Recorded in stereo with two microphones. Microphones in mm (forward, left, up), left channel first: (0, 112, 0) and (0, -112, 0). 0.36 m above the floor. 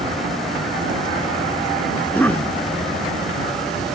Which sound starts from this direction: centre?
A cough, at 2.0 s.